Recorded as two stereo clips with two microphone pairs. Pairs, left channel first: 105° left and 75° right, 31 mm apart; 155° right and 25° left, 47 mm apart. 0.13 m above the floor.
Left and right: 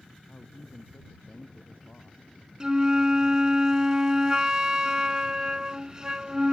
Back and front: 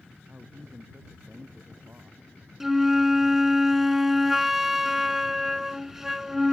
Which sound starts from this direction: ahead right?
A flute, at 2.6 s.